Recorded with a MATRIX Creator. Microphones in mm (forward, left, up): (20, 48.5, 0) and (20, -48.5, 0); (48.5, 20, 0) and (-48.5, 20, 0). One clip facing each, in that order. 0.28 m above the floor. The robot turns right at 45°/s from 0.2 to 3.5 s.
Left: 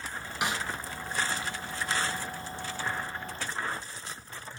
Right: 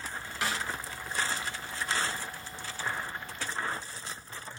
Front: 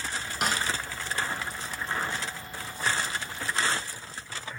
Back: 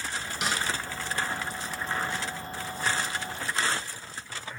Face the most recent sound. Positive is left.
turn(degrees=160)